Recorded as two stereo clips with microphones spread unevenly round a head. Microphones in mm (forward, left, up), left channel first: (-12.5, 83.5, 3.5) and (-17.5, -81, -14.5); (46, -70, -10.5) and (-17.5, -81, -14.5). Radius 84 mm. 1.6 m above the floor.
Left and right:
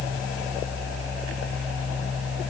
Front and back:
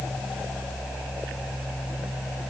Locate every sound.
Only background noise.